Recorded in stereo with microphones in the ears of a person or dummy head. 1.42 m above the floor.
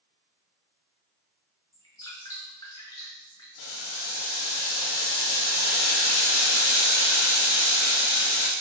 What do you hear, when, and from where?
1.7 s dripping: 20° left (ahead or behind), 1.0 m
3.6 s boiling: 85° left, 0.7 m